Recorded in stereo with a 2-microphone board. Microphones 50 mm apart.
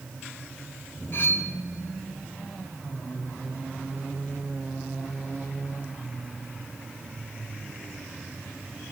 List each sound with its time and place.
1.1 s cutlery clinking: 50° left (ahead or behind), 0.6 m